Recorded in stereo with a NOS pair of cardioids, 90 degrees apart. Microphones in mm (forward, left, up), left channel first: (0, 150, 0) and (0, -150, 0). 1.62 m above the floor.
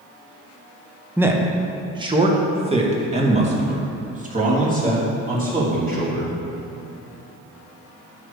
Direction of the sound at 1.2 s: 5° right.